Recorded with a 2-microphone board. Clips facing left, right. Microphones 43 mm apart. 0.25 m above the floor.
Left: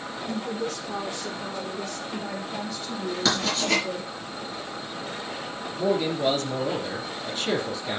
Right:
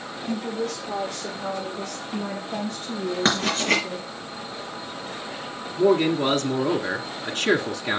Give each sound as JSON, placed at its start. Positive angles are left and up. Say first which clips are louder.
{"t": 0.3, "sound": "a woman speaking", "louder": "right 3 dB", "side_deg": -75, "distance_m": 5.5}
{"t": 3.2, "sound": "writing", "louder": "right 2 dB", "side_deg": -40, "distance_m": 4.5}
{"t": 5.8, "sound": "a man speaking", "louder": "right 5 dB", "side_deg": -65, "distance_m": 2.0}